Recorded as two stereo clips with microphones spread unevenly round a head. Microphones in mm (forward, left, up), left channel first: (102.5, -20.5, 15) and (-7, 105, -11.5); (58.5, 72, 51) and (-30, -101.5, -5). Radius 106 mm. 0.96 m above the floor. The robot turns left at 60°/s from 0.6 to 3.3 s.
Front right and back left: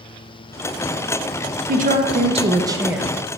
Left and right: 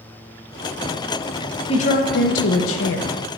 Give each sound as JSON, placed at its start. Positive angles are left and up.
{"t": 1.7, "sound": "a woman speaking", "azimuth_deg": 135, "distance_m": 0.8}